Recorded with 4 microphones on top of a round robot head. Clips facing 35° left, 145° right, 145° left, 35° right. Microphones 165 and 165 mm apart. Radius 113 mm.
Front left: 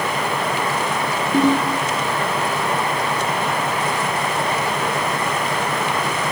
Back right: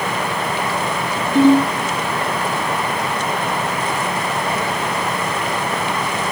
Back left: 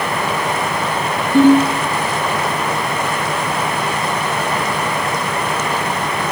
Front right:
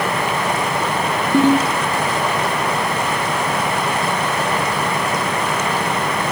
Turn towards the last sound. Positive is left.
turn(degrees=-20)